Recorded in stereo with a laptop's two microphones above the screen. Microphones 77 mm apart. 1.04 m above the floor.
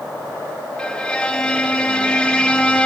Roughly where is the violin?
Centre.